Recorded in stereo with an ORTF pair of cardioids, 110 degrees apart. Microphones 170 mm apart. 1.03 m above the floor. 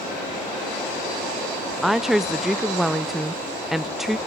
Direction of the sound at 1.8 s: Straight ahead.